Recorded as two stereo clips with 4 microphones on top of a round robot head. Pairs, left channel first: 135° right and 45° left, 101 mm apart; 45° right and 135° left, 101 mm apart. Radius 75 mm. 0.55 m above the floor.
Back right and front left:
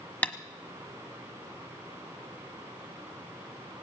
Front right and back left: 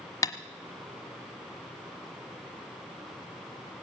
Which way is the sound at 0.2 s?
75° right.